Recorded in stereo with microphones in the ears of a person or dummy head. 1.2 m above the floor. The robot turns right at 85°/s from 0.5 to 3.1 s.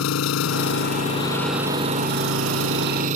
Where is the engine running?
100° left; by 3.2 s 40° right.